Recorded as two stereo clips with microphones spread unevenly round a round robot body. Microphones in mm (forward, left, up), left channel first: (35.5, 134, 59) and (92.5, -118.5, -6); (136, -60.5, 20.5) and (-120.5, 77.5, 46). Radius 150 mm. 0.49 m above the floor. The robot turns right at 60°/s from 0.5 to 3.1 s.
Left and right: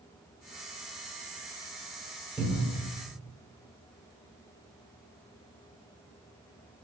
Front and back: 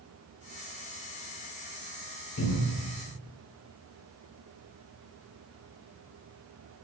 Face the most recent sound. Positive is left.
turn(degrees=40)